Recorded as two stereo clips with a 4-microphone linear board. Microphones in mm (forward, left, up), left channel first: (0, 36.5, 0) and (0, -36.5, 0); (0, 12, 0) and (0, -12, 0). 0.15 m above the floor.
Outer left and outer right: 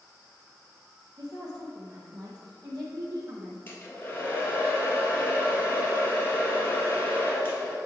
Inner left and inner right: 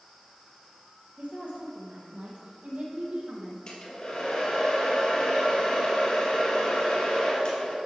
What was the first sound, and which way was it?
A woman speaking, 65° right (ahead or behind).